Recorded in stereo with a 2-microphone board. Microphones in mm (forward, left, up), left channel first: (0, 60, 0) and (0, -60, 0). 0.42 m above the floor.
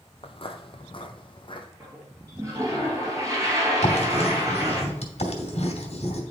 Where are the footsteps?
50° left (ahead or behind), 0.7 m; by 1.7 s 45° left (ahead or behind), 1.4 m.